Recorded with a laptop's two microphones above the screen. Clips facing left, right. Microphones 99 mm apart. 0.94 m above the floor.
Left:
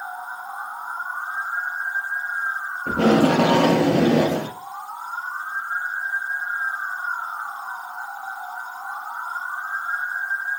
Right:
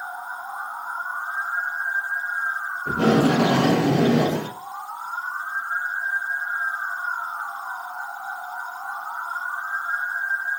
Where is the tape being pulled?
85° left, 1.1 m.